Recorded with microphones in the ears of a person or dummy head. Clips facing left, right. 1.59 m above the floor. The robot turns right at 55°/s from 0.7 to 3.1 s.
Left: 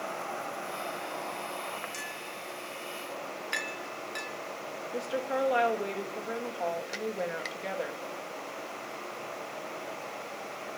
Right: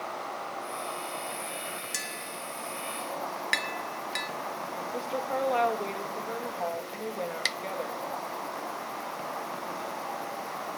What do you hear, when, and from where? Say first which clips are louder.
0.0 s an insect: even; 145° left, 4.5 m; by 10.8 s 85° right, 4.5 m
1.9 s tapping: right 1 dB; 85° right, 2.5 m; by 4.3 s 25° right (ahead or behind), 2.5 m
4.9 s a woman speaking: left 1 dB; 10° left (ahead or behind), 3 m